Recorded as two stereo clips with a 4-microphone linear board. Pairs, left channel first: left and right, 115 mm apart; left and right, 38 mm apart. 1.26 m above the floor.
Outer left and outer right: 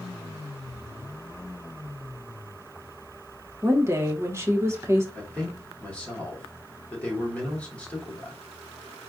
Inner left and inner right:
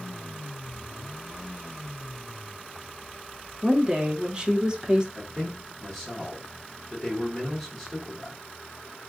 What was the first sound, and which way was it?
A woman speaking, 25° right (ahead or behind).